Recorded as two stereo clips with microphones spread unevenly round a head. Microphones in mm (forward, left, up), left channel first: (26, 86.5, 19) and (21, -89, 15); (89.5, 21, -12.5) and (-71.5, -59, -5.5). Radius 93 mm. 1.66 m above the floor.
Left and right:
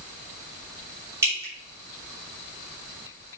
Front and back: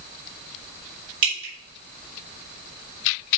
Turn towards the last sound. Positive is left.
turn(degrees=-170)